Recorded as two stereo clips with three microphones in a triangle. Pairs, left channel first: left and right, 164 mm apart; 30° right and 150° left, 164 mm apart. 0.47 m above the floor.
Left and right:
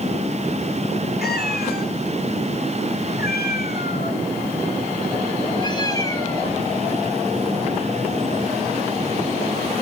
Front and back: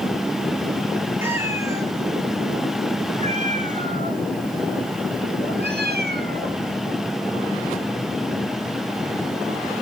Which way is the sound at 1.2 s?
75° left.